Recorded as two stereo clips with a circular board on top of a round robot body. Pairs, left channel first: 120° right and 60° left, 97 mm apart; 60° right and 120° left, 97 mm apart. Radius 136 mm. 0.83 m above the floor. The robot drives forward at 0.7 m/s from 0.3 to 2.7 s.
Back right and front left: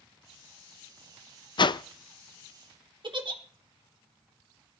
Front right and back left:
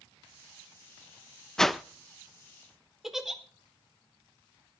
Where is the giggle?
35° left, 2.5 m.